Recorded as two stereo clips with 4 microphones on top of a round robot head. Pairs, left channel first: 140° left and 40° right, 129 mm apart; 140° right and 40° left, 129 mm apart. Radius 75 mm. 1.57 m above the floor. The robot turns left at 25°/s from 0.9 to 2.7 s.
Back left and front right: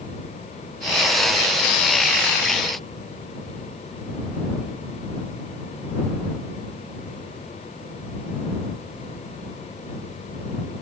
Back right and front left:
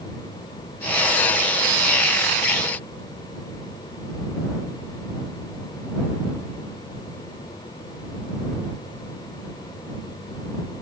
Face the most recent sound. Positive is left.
No sound to turn to.